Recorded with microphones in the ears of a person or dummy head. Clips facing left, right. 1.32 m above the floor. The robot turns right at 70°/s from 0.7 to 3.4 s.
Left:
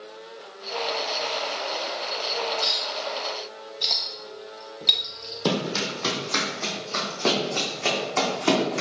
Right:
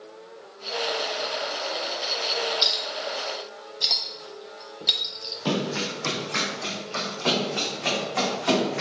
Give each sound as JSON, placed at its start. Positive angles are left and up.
{"t": 2.6, "sound": "a clink", "side_deg": -55, "distance_m": 0.9}
{"t": 5.5, "sound": "running footsteps", "side_deg": 55, "distance_m": 2.5}